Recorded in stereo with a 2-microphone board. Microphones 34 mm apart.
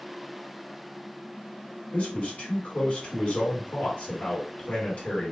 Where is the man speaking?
45° left (ahead or behind), 1.6 m.